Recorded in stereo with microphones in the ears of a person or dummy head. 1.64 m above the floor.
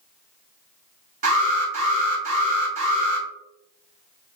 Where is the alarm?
50° right (ahead or behind), 1.4 m.